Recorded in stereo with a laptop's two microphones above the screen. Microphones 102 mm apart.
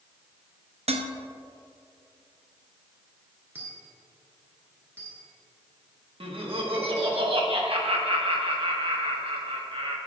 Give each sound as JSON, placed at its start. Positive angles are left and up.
{"t": 0.9, "sound": "dishes clattering", "side_deg": -80, "distance_m": 0.6}
{"t": 3.5, "sound": "a dropped coin", "side_deg": -20, "distance_m": 1.8}
{"t": 6.2, "sound": "laughter", "side_deg": -60, "distance_m": 1.3}